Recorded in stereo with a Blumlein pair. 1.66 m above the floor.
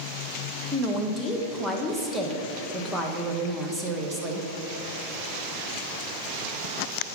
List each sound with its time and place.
0.7 s a woman speaking: 5° right, 1.1 m